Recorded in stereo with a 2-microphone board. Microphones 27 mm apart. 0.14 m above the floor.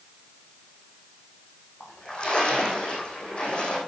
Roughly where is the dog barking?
No dog barking in this recording.